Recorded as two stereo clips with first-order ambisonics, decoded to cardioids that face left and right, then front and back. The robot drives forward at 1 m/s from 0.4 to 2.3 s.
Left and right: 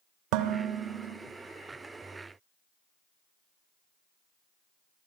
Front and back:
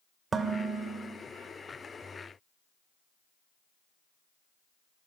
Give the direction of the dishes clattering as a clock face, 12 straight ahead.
4 o'clock.